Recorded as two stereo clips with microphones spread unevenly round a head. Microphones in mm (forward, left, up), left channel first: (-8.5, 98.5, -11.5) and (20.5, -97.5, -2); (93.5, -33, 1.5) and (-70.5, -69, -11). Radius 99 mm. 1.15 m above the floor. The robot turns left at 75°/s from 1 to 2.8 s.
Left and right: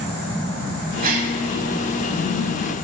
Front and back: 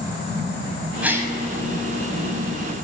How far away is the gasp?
About 1.2 m.